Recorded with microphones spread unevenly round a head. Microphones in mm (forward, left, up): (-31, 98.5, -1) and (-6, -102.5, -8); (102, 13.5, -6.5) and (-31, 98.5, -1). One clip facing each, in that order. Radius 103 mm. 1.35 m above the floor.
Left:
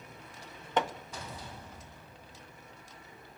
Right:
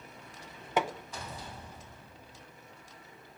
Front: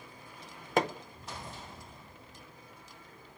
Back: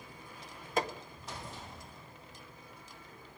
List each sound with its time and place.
0.8 s hammering: straight ahead, 0.9 m